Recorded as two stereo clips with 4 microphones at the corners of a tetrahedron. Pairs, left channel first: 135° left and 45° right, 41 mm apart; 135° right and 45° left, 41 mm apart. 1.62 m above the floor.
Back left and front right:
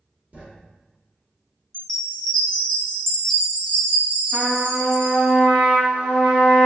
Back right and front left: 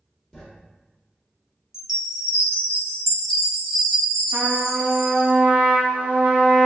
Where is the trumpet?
15° left, 0.7 m.